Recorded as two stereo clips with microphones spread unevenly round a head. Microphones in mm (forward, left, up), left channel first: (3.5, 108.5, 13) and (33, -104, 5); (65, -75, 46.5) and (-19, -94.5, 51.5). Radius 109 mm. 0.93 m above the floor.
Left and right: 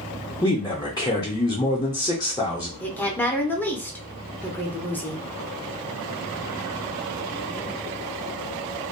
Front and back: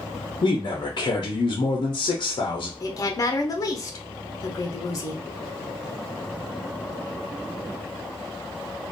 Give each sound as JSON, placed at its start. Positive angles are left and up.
{"t": 0.4, "sound": "a man speaking", "azimuth_deg": 25, "distance_m": 0.5}
{"t": 2.8, "sound": "a woman speaking", "azimuth_deg": 15, "distance_m": 0.5}